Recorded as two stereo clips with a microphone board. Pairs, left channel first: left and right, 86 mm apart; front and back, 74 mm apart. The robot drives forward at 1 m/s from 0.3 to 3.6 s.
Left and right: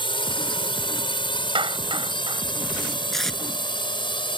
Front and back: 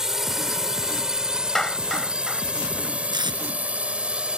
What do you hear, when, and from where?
0.0 s a drone: 95° left; by 4.4 s 105° left
1.6 s a clap: 85° right; by 2.4 s 95° right
3.1 s tape being pulled: 175° left